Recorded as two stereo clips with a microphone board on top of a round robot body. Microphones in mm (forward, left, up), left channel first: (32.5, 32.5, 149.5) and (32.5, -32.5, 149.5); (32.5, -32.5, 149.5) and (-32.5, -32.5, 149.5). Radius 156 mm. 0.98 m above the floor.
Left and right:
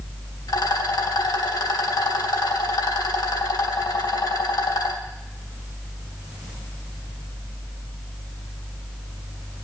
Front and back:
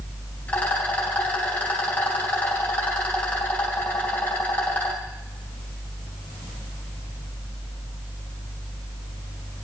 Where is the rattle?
70° left, 2.5 m.